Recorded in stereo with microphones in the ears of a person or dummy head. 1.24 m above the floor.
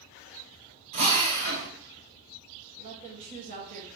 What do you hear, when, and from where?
0.9 s a drill: 35° right (ahead or behind), 1.1 m
2.8 s a woman speaking: 40° right (ahead or behind), 1.7 m